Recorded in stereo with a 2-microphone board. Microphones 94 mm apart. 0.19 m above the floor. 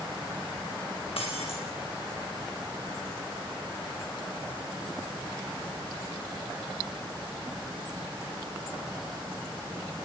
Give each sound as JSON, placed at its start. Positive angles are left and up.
{"t": 1.2, "sound": "breaking glass", "side_deg": 80, "distance_m": 5.0}